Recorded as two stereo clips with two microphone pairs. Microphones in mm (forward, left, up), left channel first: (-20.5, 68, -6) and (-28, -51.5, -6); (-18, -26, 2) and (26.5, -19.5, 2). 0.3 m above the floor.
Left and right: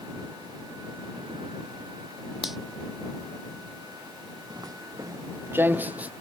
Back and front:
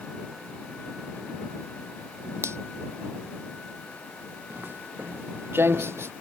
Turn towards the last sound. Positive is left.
turn(degrees=-15)